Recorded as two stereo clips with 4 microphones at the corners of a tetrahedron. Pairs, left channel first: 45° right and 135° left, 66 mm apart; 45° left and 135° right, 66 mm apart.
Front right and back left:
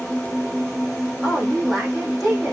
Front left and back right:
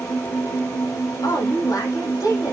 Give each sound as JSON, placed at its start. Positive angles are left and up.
{"t": 0.0, "sound": "an engine running", "azimuth_deg": 45, "distance_m": 5.0}
{"t": 1.2, "sound": "a woman speaking", "azimuth_deg": 40, "distance_m": 6.0}